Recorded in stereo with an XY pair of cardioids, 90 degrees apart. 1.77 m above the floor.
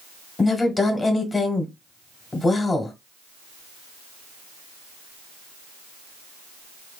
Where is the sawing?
I don't hear sawing.